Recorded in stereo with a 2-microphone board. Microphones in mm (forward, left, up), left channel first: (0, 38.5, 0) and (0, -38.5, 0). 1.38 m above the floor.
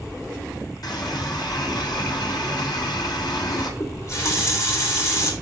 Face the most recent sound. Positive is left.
turn(degrees=40)  # may be behind; listen again after turning